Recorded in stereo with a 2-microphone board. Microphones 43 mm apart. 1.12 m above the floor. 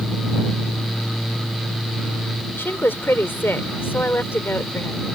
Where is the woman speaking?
55° left (ahead or behind).